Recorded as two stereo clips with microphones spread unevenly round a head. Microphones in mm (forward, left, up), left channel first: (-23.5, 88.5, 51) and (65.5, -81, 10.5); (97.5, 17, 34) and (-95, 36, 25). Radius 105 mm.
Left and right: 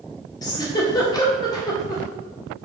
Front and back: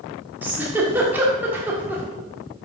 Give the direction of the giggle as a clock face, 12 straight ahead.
9 o'clock.